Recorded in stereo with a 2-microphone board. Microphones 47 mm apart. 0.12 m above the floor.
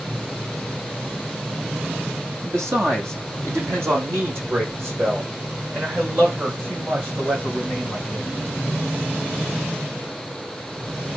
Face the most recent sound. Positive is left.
turn(degrees=-45)  # may be behind; listen again after turning